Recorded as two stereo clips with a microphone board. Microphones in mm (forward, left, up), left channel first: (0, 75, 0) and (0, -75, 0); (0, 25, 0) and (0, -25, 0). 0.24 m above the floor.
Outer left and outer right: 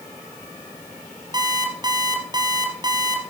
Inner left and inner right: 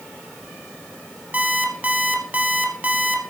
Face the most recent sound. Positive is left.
turn(degrees=-30)  # may be behind; listen again after turning